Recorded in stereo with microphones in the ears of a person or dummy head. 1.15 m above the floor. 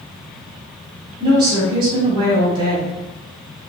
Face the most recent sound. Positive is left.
turn(degrees=-25)  # may be behind; listen again after turning